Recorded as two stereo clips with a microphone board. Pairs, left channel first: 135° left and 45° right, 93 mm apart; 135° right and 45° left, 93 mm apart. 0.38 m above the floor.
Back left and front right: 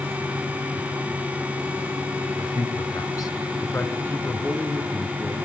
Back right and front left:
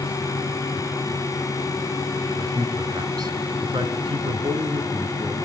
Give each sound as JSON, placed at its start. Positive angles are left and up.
{"t": 2.4, "sound": "a man speaking", "azimuth_deg": 100, "distance_m": 4.0}